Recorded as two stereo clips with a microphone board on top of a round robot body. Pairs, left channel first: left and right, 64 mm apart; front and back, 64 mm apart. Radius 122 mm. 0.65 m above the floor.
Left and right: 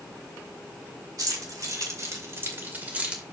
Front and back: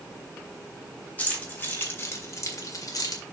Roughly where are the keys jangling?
Ahead right.